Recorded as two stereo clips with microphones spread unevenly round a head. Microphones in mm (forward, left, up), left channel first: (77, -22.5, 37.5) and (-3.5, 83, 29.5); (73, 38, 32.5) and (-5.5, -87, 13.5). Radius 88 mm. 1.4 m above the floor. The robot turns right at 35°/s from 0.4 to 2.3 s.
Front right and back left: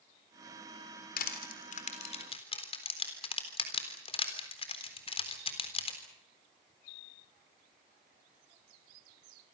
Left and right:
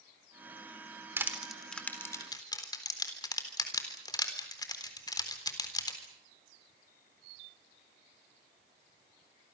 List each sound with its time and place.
1.2 s crushing: 45° right, 3.5 m; by 6.0 s 5° right, 3.5 m